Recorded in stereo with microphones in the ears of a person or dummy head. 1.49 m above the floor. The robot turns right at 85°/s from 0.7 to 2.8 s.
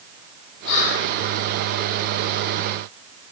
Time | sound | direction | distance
0.7 | whispering | 65° left | 0.7 m